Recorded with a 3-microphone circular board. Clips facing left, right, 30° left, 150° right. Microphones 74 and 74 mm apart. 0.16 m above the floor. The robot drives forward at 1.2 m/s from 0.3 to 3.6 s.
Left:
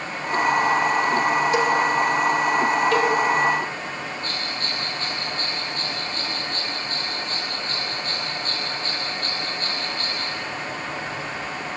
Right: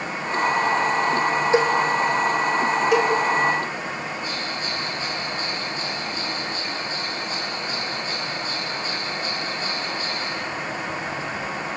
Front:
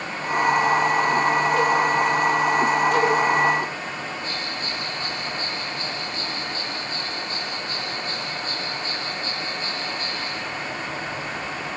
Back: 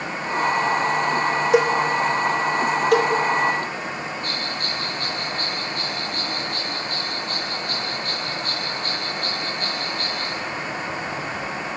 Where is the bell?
170° right, 5 m.